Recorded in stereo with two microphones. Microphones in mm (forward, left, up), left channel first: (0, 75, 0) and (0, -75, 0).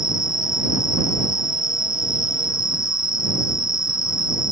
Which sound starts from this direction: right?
An insect, at 0.0 s.